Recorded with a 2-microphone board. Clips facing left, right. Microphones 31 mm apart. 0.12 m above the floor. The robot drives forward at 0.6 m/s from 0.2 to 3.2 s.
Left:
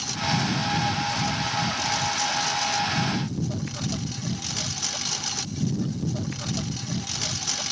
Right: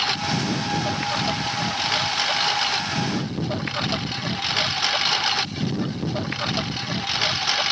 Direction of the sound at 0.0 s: 50° right (ahead or behind).